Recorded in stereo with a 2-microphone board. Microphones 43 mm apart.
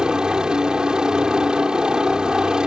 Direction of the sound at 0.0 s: 20° right (ahead or behind).